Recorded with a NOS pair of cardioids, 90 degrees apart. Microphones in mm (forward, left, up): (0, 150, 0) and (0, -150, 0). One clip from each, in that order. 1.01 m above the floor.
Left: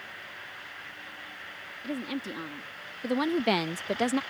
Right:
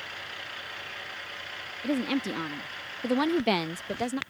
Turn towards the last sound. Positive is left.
turn(degrees=30)